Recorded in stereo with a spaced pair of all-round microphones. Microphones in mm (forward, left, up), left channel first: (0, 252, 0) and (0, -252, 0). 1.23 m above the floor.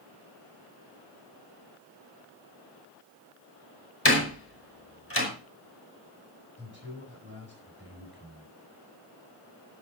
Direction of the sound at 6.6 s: 20° right (ahead or behind).